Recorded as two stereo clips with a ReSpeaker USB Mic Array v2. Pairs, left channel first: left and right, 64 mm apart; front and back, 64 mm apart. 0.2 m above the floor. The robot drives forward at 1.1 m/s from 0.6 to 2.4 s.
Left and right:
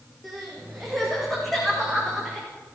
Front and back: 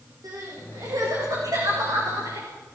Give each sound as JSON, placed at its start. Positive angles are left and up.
{"t": 0.2, "sound": "crying", "azimuth_deg": 180, "distance_m": 8.5}